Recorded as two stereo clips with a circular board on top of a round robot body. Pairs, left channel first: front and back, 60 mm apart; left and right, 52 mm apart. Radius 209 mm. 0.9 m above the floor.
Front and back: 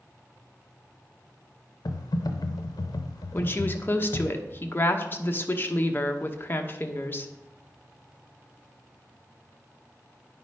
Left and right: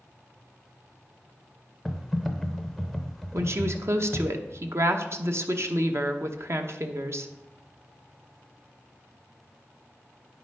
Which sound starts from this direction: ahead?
Typing on a keyboard, at 1.9 s.